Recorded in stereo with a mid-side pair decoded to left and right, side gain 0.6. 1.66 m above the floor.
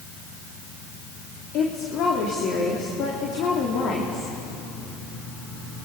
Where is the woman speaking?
60° left, 3 m.